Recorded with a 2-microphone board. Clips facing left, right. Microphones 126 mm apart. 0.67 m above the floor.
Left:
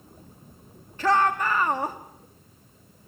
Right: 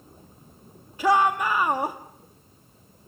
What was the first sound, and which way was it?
A shout, 10° right (ahead or behind).